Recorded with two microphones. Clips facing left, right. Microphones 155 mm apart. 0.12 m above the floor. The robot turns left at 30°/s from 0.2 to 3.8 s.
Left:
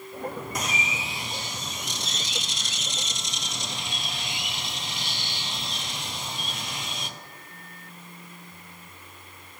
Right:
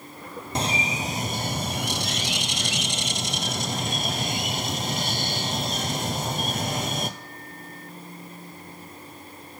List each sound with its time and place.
0.6 s a bird: 30° right, 0.7 m; by 7.1 s 130° right, 0.7 m